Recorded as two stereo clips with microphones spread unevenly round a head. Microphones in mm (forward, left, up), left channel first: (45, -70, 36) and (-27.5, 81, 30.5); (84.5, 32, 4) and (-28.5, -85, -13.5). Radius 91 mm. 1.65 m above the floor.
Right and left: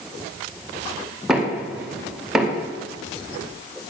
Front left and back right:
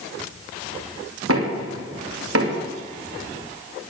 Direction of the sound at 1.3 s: 155° right.